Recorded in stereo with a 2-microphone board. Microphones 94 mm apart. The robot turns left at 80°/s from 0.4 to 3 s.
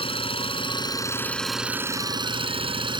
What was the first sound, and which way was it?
An engine running, 90° left.